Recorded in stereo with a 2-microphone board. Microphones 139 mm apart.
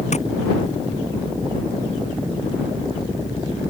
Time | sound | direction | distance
0.1 | tapping | 55° left (ahead or behind) | ?